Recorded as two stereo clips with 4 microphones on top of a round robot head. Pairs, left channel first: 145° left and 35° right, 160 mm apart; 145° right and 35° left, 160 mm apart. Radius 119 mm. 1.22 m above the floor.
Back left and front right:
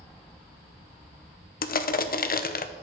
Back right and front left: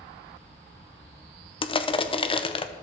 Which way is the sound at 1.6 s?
160° left.